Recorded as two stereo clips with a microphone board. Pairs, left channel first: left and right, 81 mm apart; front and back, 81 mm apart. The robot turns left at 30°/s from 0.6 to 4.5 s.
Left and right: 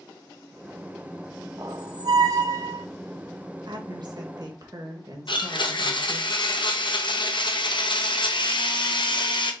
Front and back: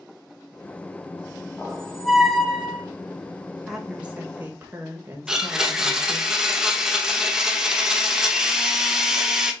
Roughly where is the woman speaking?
Right.